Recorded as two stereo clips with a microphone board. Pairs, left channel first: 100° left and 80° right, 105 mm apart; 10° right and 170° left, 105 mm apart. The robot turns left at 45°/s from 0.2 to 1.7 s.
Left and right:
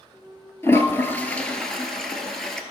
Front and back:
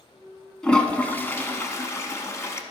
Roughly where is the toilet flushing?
Ahead left.